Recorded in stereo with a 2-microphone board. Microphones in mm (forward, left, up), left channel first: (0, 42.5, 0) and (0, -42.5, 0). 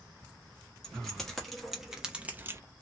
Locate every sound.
0.8 s keys jangling: 5° left (ahead or behind), 1.7 m; by 2.6 s 35° right (ahead or behind), 0.5 m